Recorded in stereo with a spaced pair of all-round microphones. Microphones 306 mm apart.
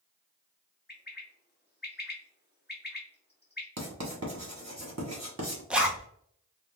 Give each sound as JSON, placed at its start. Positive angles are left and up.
{"t": 0.9, "sound": "a bird", "side_deg": 35, "distance_m": 0.9}
{"t": 3.8, "sound": "writing", "side_deg": -60, "distance_m": 1.1}
{"t": 5.7, "sound": "a zipper", "side_deg": -5, "distance_m": 0.5}